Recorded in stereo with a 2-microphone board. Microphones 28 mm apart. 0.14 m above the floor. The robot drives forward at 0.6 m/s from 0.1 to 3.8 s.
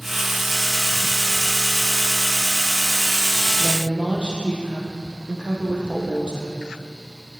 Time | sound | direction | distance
3.6 | a woman speaking | 40° right (ahead or behind) | 3.5 m